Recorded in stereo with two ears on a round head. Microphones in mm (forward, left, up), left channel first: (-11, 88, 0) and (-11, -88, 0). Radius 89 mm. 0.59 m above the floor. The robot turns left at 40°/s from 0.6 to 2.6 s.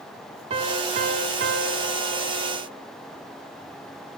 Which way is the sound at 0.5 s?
35° right.